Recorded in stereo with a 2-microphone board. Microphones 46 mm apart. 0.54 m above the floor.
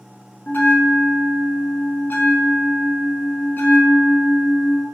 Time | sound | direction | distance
0.5 | a bell | 45° left (ahead or behind) | 0.9 m